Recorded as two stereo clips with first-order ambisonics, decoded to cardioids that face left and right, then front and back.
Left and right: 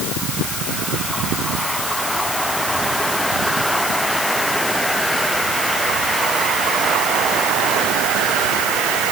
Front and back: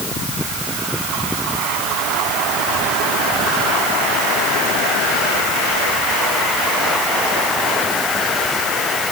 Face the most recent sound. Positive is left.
No sound to turn to.